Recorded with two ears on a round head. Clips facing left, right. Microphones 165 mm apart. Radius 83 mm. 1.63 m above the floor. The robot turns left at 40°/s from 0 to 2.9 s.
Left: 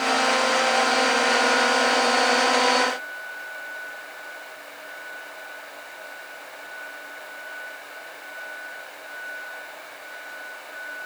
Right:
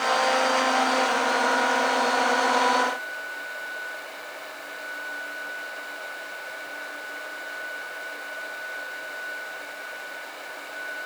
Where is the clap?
I don't hear a clap.